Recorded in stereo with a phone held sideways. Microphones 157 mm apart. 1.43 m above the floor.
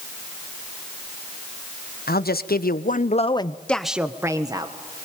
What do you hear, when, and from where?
2.1 s a man speaking: 75° left (ahead or behind), 1.3 m; by 4.7 s 30° right (ahead or behind), 1.4 m